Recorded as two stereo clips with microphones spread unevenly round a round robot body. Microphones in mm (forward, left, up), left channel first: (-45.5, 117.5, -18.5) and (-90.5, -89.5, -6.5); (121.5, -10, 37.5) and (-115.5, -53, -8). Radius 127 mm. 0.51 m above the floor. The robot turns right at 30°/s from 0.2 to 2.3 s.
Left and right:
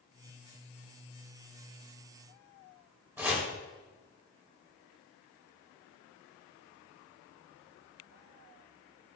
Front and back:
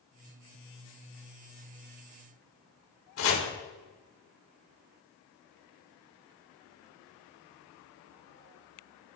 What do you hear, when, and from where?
3.2 s chopping: 20° right, 2.5 m